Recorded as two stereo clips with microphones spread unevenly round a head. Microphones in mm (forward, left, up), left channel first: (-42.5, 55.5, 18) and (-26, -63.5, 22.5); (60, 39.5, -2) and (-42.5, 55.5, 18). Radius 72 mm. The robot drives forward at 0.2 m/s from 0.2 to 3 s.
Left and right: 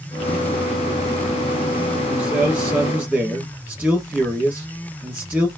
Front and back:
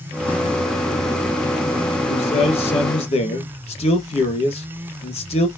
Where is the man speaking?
5° right, 2 m.